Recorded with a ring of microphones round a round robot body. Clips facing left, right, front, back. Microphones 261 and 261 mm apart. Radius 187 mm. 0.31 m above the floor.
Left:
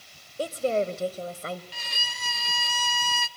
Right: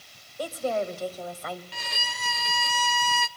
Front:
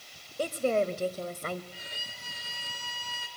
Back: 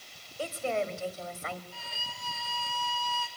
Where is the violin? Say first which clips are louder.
Right 4 dB, even; 70° right, 0.6 m.